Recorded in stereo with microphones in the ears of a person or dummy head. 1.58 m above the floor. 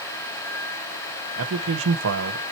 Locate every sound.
1.4 s a man speaking: 70° right (ahead or behind), 1.5 m